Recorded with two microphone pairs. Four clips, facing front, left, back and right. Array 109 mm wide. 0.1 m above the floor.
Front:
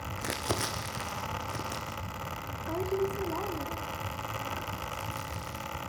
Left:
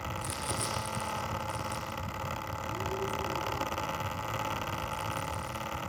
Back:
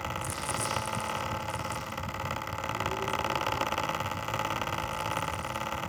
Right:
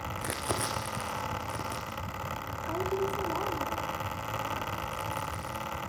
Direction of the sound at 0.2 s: 35° right.